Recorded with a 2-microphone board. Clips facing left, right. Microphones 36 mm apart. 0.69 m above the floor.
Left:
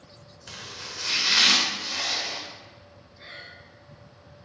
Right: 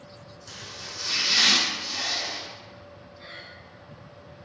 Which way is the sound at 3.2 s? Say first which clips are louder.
Left 1 dB; 10° left (ahead or behind).